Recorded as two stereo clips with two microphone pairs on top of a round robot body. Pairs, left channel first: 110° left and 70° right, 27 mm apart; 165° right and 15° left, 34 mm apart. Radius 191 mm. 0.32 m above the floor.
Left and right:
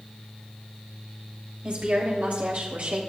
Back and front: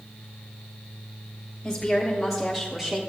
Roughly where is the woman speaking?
Right.